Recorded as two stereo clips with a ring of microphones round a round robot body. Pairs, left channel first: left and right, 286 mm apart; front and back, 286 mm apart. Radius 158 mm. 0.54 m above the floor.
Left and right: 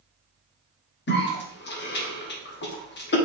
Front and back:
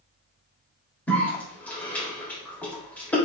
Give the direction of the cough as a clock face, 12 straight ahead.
9 o'clock.